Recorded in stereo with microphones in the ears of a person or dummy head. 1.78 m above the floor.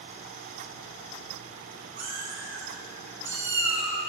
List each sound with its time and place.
2.0 s a cat meowing: 35° right (ahead or behind), 1.3 m; by 4.0 s 5° right (ahead or behind), 2 m